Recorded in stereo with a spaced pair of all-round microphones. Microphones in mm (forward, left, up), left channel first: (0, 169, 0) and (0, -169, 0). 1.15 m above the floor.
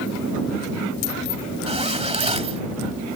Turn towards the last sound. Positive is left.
turn(degrees=-20)  # may be behind; listen again after turning